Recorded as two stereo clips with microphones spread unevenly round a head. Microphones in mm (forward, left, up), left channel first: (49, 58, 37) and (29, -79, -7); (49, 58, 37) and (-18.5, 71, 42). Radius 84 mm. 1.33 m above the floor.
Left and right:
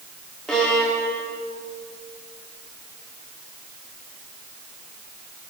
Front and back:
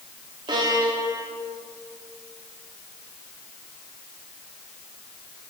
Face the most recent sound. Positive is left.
turn(degrees=165)